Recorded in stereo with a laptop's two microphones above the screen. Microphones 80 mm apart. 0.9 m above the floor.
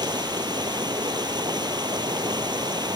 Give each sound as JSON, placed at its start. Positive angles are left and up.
{"t": 0.0, "sound": "running water", "side_deg": -65}